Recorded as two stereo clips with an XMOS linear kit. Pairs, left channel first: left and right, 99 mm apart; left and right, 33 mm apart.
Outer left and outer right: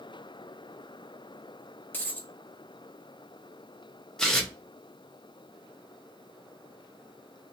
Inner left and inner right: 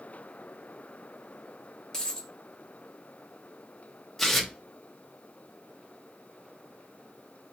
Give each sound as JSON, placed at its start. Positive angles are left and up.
{"t": 1.9, "sound": "a dropped coin", "side_deg": 20, "distance_m": 0.9}
{"t": 4.2, "sound": "tearing paper", "side_deg": 5, "distance_m": 0.8}